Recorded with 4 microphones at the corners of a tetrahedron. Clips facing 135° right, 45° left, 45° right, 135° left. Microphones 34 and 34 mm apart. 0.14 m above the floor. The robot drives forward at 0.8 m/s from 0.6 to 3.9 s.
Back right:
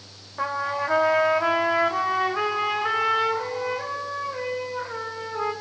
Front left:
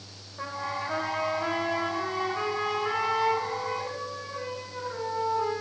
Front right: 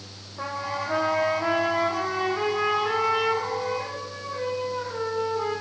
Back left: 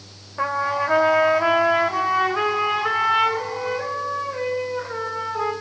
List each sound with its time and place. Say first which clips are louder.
0.4 s a trumpet: back right 7 dB, back left 8 dB; straight behind, 1.3 m